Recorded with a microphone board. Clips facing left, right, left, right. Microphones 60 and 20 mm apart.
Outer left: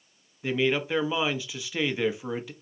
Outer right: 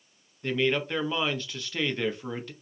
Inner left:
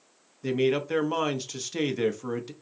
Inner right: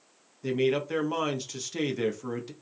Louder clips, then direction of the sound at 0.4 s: Outer left 1 dB, inner left 1 dB; 10° left (ahead or behind).